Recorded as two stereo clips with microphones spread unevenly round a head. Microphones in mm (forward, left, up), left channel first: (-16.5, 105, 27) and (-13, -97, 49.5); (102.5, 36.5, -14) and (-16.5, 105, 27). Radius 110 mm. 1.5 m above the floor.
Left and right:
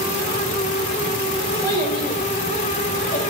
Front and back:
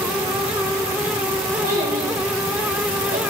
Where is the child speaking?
165° left, 4 m; by 3.2 s 150° left, 5.5 m.